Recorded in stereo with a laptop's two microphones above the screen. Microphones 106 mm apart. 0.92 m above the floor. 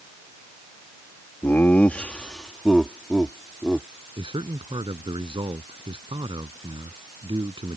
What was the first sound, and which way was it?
Laughter, 20° left (ahead or behind).